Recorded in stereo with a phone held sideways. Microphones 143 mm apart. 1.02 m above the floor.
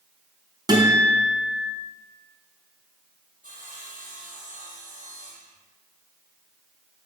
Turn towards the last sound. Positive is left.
turn(degrees=-65)  # may be behind; listen again after turning